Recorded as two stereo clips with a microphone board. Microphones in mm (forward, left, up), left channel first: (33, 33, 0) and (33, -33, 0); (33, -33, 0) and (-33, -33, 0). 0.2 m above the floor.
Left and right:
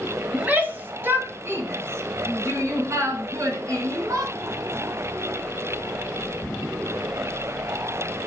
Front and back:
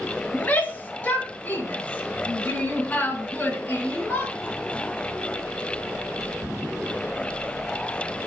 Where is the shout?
45° right, 1.4 m; by 4.3 s 65° right, 3 m.